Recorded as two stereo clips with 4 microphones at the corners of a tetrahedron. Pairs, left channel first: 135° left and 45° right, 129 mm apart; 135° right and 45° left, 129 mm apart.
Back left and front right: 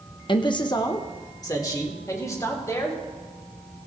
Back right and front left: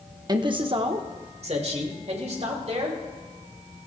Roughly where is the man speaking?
Left.